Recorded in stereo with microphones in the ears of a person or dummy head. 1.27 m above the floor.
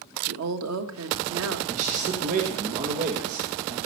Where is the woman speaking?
90° right, 1.4 m.